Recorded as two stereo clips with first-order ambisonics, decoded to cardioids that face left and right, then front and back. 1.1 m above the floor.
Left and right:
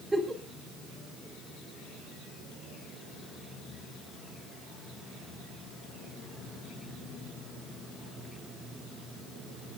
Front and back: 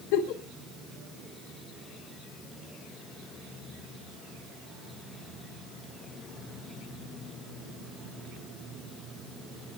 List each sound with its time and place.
0.1 s a giggle: 10° right, 3 m